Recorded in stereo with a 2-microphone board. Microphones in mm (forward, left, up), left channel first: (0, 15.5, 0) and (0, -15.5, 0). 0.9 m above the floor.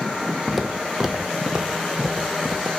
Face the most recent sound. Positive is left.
turn(degrees=-30)  # may be behind; listen again after turning